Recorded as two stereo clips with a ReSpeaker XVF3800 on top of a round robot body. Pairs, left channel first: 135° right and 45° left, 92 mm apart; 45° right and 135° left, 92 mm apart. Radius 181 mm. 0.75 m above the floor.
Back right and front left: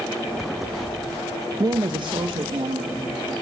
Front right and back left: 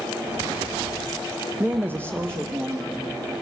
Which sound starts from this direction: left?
A woman speaking, at 1.6 s.